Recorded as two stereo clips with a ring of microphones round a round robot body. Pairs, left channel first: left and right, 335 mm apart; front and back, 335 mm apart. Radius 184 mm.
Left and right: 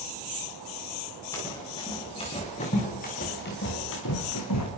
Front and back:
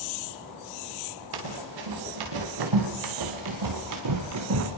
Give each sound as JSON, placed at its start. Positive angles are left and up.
{"t": 1.3, "sound": "running footsteps", "azimuth_deg": 170, "distance_m": 6.0}